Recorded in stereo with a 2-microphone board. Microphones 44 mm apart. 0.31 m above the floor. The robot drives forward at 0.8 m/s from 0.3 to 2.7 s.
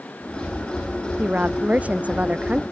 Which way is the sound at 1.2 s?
30° right (ahead or behind).